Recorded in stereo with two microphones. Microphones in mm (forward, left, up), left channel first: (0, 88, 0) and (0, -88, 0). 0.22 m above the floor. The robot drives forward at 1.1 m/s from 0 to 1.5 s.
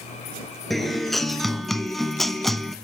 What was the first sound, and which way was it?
A guitar, centre (ahead or behind).